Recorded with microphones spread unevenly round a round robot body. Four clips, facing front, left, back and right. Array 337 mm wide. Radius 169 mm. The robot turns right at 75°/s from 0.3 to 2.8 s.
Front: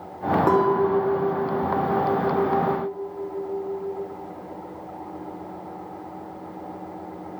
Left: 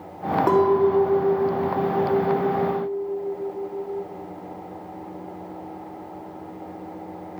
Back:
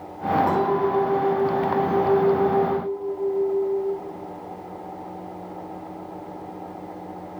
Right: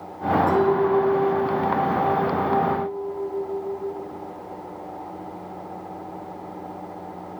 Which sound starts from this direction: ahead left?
A clink, at 0.5 s.